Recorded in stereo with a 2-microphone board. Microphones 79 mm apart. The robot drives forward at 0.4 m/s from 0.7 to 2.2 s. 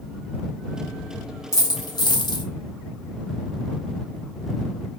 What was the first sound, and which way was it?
A dropped coin, 45° left (ahead or behind).